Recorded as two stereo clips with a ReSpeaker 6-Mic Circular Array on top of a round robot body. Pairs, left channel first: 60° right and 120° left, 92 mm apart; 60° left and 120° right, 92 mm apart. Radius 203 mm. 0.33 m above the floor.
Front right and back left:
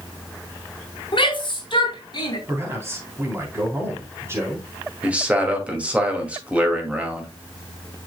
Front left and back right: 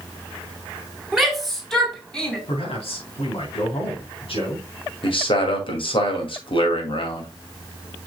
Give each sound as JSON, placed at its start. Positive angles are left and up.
{"t": 1.1, "sound": "a shout", "azimuth_deg": -35, "distance_m": 3.0}
{"t": 2.5, "sound": "a man speaking", "azimuth_deg": 55, "distance_m": 3.5}
{"t": 5.0, "sound": "a man speaking", "azimuth_deg": 45, "distance_m": 2.5}